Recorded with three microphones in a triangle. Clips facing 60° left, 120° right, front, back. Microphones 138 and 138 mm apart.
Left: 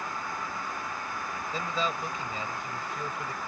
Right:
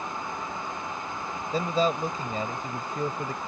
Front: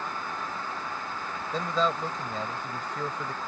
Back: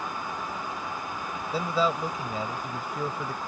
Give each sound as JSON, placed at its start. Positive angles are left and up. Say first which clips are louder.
{"t": 1.5, "sound": "a man speaking", "louder": "right 8 dB, back 1 dB", "azimuth_deg": -105}